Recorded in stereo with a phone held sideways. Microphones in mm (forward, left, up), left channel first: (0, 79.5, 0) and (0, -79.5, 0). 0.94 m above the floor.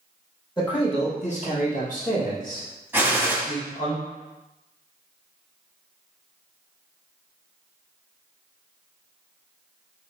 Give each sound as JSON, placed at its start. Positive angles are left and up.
{"t": 0.6, "sound": "a man speaking", "side_deg": 25, "distance_m": 1.2}
{"t": 2.9, "sound": "a gunshot", "side_deg": -15, "distance_m": 1.0}